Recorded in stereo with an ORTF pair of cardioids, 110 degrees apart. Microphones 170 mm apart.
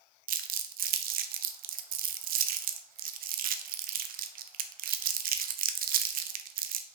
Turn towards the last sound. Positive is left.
turn(degrees=-60)